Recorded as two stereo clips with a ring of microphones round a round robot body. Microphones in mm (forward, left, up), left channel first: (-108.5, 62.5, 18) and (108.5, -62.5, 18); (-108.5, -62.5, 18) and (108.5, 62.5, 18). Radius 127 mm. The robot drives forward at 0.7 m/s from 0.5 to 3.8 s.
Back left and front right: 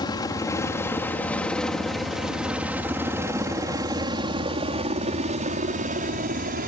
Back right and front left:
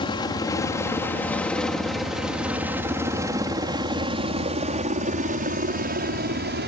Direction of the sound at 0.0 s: 175° right.